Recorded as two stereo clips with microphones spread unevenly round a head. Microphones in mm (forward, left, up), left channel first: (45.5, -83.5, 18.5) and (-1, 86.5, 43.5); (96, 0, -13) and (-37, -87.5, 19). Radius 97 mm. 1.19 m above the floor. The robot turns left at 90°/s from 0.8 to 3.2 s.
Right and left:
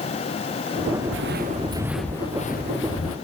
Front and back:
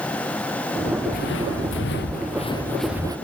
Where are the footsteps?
90° left; by 3.2 s 85° right.